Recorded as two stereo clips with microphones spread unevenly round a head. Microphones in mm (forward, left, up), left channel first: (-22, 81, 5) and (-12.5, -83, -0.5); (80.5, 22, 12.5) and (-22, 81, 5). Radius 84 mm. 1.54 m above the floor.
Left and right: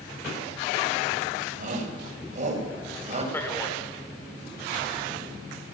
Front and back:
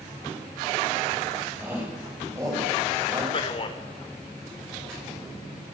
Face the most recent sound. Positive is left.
turn(degrees=15)